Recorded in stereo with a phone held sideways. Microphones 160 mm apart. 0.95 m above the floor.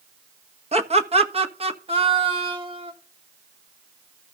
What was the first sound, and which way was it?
Laughter, 40° right (ahead or behind).